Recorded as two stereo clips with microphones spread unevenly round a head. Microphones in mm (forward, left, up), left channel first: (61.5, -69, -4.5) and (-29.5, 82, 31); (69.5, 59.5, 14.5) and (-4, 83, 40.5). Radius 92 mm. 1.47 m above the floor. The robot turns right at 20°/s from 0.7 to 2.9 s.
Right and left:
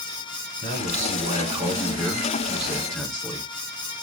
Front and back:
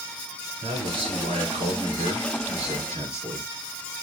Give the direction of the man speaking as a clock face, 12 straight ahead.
6 o'clock.